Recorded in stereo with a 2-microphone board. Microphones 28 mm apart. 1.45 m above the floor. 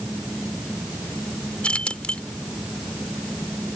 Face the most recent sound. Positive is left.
turn(degrees=50)  # may be behind; listen again after turning